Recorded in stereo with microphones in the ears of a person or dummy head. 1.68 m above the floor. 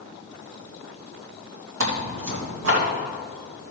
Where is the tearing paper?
75° right (ahead or behind), 2 m.